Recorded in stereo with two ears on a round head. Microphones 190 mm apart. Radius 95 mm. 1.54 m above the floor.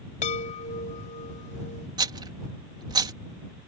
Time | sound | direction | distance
0.2 | a chime | 35° left (ahead or behind) | ?
2.0 | a rattle | 20° right (ahead or behind) | ?